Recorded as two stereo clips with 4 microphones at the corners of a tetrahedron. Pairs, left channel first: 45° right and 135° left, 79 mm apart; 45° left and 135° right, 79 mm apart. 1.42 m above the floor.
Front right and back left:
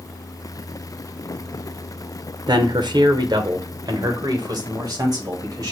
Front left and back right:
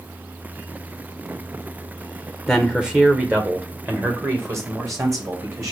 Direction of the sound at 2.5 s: 130° left.